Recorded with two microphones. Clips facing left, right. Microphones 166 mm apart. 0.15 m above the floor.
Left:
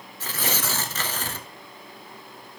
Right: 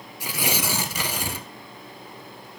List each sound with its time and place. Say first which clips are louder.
0.2 s tearing paper: right 2 dB; 15° right (ahead or behind), 0.6 m